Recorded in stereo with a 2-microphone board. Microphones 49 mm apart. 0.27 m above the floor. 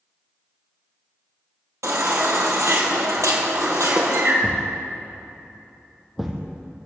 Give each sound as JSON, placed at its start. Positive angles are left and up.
{"t": 1.8, "sound": "a baby crying", "side_deg": -80, "distance_m": 3.0}
{"t": 4.4, "sound": "a thud", "side_deg": -5, "distance_m": 3.0}